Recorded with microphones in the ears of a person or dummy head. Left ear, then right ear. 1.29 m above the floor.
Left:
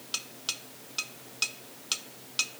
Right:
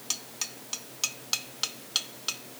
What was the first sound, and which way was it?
Only background noise.